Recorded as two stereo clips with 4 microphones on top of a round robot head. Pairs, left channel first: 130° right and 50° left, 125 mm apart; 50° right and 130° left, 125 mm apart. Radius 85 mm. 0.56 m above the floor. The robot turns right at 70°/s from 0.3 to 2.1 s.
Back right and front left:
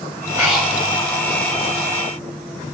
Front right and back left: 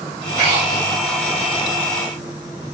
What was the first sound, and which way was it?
Breathing, 125° left.